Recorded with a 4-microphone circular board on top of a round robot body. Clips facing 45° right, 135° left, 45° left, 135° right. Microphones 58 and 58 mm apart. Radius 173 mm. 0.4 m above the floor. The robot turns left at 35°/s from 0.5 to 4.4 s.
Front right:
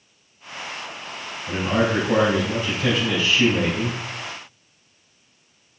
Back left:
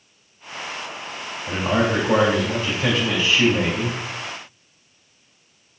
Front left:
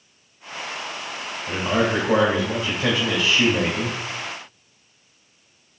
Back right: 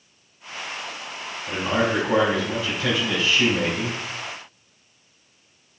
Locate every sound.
1.5 s a man speaking: 130° left, 3 m; by 4.0 s 40° left, 3 m